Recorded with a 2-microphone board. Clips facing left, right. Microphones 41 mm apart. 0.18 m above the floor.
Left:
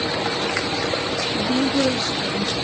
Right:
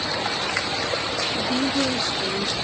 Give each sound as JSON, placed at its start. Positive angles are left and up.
{"t": 1.4, "sound": "a woman speaking", "side_deg": 55, "distance_m": 3.0}